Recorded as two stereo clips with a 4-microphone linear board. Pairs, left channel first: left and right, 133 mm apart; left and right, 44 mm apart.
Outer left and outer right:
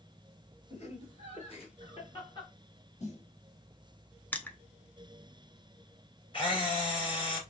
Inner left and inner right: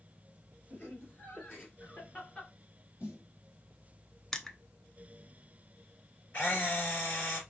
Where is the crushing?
15° left (ahead or behind), 0.5 m.